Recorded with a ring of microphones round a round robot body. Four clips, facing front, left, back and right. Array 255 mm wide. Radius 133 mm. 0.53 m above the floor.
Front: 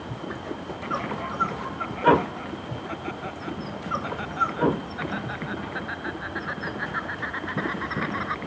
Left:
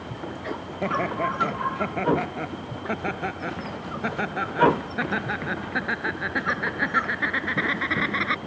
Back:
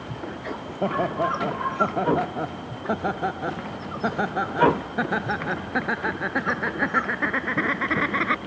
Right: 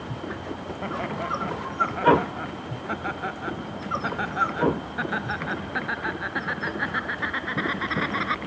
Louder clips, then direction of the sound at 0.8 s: Left 6 dB, back 8 dB; 150° left.